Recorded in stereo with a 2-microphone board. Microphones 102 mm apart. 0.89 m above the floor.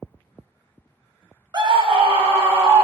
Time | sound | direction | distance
1.5 | a scream | 45° right (ahead or behind) | 0.7 m